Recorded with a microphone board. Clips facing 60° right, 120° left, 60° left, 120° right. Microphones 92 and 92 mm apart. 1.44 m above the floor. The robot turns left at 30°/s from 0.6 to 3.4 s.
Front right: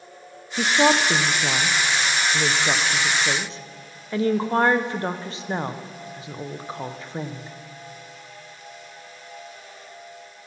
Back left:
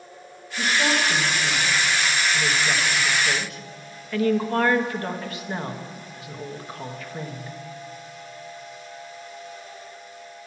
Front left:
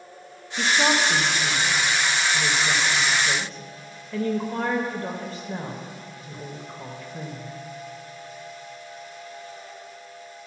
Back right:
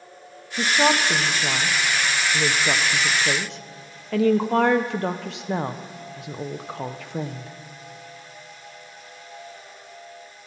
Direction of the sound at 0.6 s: 40° right.